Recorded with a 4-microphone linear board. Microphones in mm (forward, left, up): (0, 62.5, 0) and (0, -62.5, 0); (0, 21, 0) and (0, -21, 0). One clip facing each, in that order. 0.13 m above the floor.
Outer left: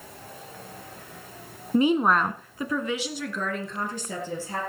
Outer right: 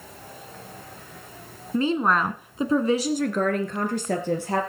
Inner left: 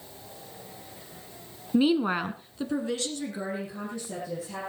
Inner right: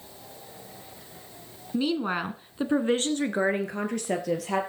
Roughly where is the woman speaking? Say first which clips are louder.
Outer left 2 dB, inner left 3 dB; left.